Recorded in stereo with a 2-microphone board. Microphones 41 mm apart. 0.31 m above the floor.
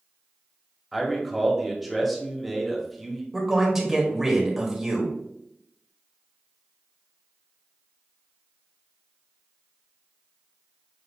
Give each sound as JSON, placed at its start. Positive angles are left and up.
{"t": 0.9, "sound": "a man speaking", "side_deg": 5, "distance_m": 1.1}
{"t": 3.3, "sound": "a man speaking", "side_deg": -10, "distance_m": 1.4}